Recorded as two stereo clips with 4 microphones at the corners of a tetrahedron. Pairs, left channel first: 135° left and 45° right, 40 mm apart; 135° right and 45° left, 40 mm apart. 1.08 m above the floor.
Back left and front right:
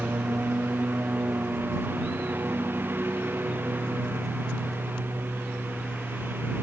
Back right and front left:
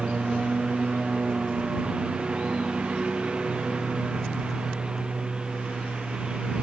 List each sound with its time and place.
0.0 s a lawn mower: 20° right